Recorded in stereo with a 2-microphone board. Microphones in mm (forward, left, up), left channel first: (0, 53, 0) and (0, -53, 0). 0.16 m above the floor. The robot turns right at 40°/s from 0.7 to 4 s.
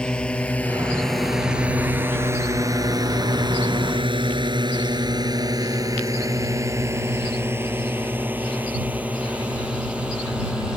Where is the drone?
10° left (ahead or behind); by 10.8 s 10° right (ahead or behind).